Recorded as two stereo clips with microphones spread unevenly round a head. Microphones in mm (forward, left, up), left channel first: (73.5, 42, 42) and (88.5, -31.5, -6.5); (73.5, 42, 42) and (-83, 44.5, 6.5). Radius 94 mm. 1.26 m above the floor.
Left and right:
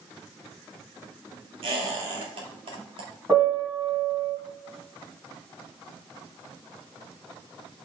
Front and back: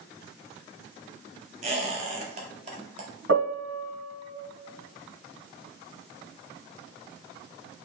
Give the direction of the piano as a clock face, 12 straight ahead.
6 o'clock.